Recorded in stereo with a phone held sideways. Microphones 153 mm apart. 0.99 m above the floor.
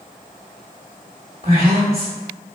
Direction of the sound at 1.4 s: 45° right (ahead or behind).